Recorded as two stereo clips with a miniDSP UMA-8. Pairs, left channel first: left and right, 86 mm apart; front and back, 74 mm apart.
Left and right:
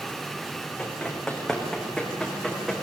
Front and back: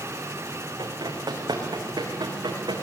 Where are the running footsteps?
170° left, 5 m; by 2.8 s straight behind, 5.5 m.